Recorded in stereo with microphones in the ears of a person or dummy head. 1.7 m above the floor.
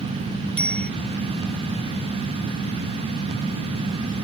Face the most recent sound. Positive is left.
turn(degrees=10)  # may be behind; listen again after turning